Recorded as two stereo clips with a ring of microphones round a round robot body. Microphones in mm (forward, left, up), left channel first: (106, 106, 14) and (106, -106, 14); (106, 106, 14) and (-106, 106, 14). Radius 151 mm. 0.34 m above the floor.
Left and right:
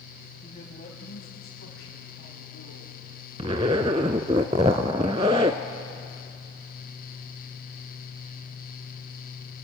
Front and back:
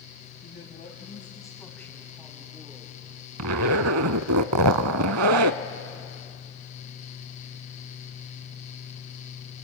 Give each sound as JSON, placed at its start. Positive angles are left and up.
{"t": 0.4, "sound": "a woman speaking", "azimuth_deg": 30, "distance_m": 2.5}
{"t": 3.4, "sound": "a zipper", "azimuth_deg": -160, "distance_m": 0.5}